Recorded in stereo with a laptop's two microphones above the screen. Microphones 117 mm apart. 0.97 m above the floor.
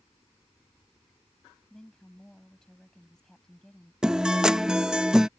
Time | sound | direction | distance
1.7 | a woman speaking | 5° left (ahead or behind) | ?
4.0 | a guitar | 5° right (ahead or behind) | ?